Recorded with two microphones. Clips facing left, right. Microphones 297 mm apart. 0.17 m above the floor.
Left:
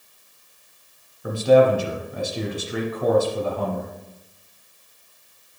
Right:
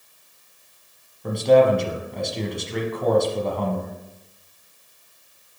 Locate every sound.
1.2 s a man speaking: 5° left (ahead or behind), 1.1 m